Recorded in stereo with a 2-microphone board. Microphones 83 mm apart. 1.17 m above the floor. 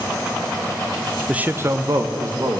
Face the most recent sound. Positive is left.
turn(degrees=-50)  # may be behind; listen again after turning